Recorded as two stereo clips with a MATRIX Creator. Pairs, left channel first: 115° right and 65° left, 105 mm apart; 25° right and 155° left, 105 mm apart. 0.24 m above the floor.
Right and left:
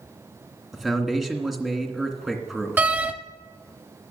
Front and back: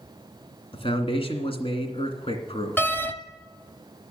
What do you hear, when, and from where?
0.7 s a man speaking: 20° right, 2 m
2.8 s a door slam: 20° left, 0.8 m